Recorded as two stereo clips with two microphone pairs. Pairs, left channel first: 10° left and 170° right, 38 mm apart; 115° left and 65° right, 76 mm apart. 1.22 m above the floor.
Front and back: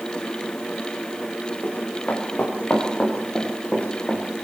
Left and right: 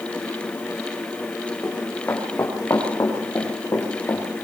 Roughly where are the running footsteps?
Ahead left.